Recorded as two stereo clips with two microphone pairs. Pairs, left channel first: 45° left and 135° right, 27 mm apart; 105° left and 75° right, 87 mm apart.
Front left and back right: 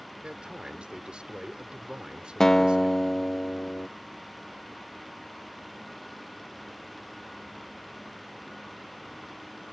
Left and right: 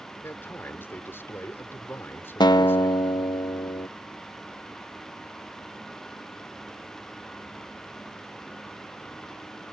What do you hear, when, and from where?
0.2 s a man speaking: 170° left
2.4 s a guitar: 110° left